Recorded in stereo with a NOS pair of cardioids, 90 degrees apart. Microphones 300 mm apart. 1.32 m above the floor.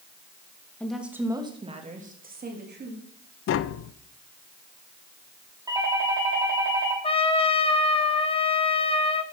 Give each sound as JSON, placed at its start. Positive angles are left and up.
{"t": 0.8, "sound": "a woman speaking", "azimuth_deg": 5, "distance_m": 1.8}
{"t": 3.5, "sound": "tapping", "azimuth_deg": 50, "distance_m": 0.5}
{"t": 5.7, "sound": "a doorbell", "azimuth_deg": -15, "distance_m": 4.0}
{"t": 7.0, "sound": "a trumpet", "azimuth_deg": 20, "distance_m": 1.3}